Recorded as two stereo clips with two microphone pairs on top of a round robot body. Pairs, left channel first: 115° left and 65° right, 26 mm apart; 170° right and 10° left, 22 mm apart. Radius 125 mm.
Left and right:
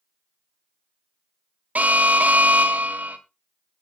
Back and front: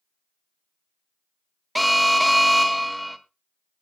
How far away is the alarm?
About 1.7 m.